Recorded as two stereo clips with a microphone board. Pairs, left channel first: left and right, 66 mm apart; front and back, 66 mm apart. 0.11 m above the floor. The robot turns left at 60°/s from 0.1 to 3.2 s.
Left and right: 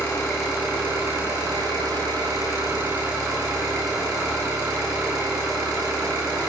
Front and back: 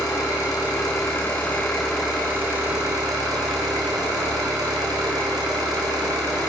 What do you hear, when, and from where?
0.0 s an engine running: 10° left, 7.5 m; by 6.5 s 175° right, 7.5 m